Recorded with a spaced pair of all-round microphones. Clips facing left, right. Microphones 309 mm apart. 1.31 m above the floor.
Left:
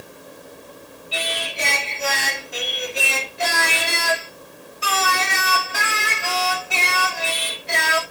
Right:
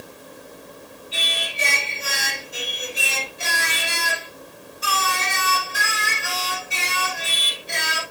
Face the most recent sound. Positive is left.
turn(degrees=80)